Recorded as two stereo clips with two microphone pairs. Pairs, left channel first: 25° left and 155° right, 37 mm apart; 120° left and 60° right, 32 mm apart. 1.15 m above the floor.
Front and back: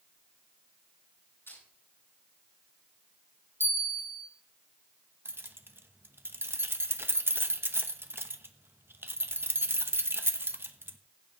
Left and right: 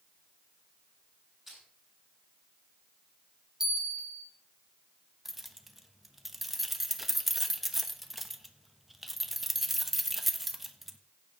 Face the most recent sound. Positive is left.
turn(degrees=-145)